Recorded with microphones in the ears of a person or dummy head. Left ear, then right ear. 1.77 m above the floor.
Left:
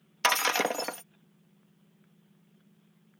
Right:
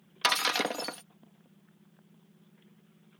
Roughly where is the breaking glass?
Left.